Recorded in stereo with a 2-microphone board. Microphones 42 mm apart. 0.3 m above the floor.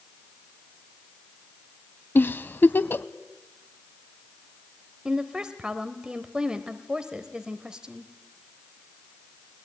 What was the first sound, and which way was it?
A giggle, 55° left (ahead or behind).